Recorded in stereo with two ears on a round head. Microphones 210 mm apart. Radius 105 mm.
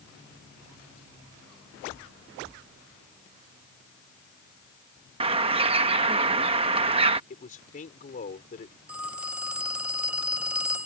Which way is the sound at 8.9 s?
5° right (ahead or behind).